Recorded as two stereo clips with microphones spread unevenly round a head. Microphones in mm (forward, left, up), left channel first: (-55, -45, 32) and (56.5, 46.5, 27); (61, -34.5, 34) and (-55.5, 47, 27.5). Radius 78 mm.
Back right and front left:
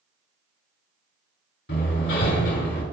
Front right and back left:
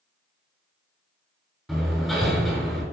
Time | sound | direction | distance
1.7 | hammering | 125° right | 6 m